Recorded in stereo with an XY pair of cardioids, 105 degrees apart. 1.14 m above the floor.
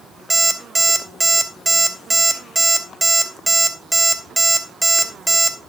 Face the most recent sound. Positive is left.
turn(degrees=-15)